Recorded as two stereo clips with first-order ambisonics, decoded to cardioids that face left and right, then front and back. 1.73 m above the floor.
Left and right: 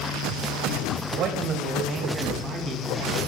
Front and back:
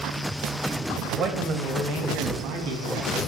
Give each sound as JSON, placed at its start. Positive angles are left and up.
{"t": 1.1, "sound": "a man speaking", "azimuth_deg": -130, "distance_m": 1.3}